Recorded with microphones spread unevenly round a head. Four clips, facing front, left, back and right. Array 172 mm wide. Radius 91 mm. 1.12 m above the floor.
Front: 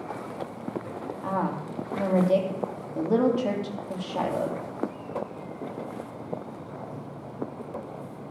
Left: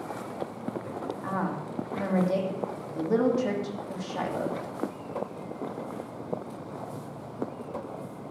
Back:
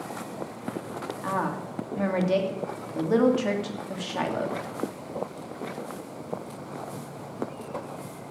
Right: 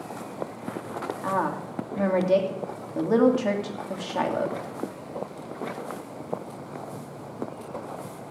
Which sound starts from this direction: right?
A woman speaking, at 1.2 s.